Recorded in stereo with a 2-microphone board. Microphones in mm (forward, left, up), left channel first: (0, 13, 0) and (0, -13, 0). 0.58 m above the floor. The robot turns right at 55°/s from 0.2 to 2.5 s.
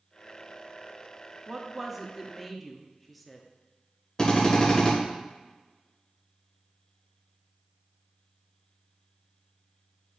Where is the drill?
25° left (ahead or behind), 1.9 m.